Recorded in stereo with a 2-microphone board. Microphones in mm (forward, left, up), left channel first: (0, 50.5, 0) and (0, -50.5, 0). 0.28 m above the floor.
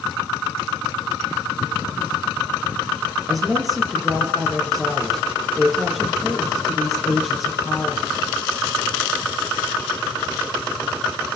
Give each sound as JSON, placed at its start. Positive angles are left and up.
{"t": 3.3, "sound": "a woman speaking", "side_deg": 0, "distance_m": 5.5}